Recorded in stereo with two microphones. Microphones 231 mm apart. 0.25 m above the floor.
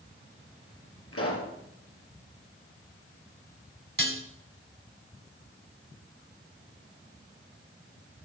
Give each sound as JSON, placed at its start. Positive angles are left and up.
{"t": 1.1, "sound": "a pop", "side_deg": 75, "distance_m": 3.0}
{"t": 4.0, "sound": "dishes clattering", "side_deg": -55, "distance_m": 1.4}